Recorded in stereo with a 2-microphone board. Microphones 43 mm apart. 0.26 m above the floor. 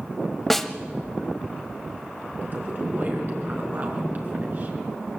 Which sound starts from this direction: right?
A woman speaking, at 2.4 s.